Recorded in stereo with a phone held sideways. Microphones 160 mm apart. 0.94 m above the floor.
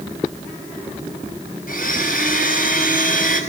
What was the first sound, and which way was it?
A blender, 65° left (ahead or behind).